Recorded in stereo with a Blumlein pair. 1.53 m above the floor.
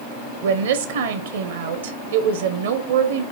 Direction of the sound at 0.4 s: 60° right.